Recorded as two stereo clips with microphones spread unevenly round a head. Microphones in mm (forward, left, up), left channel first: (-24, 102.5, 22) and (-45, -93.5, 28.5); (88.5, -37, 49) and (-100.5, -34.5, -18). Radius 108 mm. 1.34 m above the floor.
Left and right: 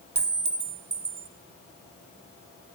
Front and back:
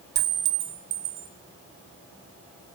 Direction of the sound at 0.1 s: 155° right.